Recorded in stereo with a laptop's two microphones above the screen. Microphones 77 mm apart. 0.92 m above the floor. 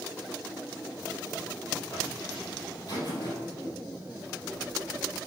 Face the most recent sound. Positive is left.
turn(degrees=55)  # may be behind; listen again after turning